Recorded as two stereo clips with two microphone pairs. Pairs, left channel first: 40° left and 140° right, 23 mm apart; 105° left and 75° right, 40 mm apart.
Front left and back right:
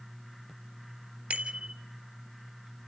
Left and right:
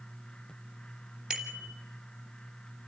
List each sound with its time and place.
1.3 s a bicycle bell: 145° right, 3 m